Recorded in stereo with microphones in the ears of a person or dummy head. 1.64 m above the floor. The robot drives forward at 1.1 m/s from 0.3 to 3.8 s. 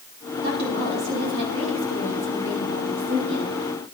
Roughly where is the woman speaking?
Right.